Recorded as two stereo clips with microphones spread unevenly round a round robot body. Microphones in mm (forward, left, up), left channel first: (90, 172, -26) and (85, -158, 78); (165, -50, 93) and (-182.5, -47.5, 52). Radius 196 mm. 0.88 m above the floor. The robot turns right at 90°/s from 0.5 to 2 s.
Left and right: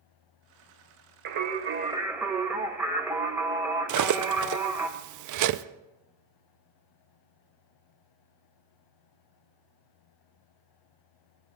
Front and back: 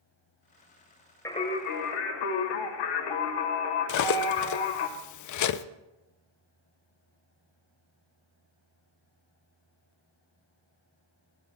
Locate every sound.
1.2 s singing: 80° right, 1.3 m; by 4.9 s 10° right, 1.3 m
3.9 s cutlery clinking: 45° right, 0.6 m